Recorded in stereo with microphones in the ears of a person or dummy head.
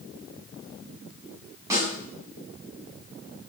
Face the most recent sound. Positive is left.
turn(degrees=-20)  # may be behind; listen again after turning